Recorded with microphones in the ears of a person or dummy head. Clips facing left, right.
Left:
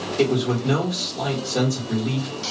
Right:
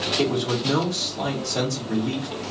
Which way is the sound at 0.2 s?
25° left (ahead or behind).